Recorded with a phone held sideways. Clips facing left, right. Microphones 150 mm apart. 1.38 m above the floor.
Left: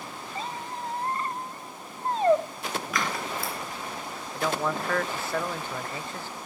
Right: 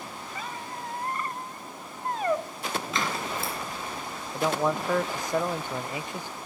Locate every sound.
0.3 s a squeak: 30° left (ahead or behind), 0.6 m
2.9 s scissors: 25° right (ahead or behind), 3.5 m
4.3 s a man speaking: 15° right (ahead or behind), 0.6 m